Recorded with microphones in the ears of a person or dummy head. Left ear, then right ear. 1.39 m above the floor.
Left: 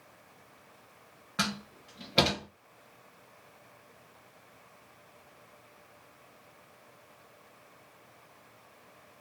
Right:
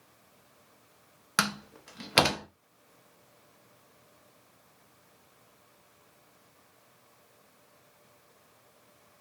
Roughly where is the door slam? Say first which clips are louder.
Right 4 dB; right.